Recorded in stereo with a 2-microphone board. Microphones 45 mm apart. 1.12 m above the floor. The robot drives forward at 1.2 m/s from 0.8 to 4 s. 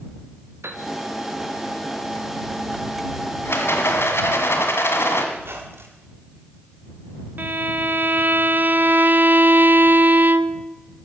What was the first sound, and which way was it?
A piano, 75° right (ahead or behind).